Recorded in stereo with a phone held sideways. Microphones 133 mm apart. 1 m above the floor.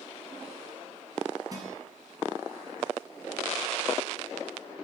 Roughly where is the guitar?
Right.